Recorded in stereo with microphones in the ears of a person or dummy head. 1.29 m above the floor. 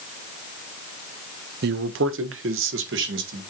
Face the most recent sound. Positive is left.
turn(degrees=-60)  # may be behind; listen again after turning